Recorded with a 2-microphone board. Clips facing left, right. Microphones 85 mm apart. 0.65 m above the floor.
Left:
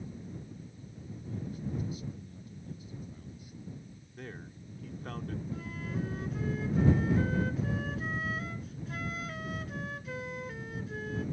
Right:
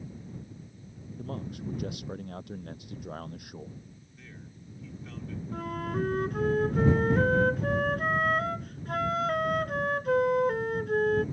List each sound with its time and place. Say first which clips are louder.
1.2 s a man speaking: right 3 dB; 80° right
4.2 s a man speaking: left 6 dB; 55° left (ahead or behind)
5.5 s a flute: right 10 dB; 60° right (ahead or behind)